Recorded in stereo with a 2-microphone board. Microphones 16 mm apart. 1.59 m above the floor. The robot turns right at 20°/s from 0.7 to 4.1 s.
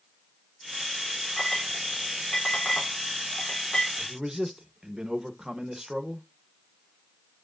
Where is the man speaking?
30° right (ahead or behind), 1.1 m; by 6.3 s 35° right (ahead or behind), 1.1 m.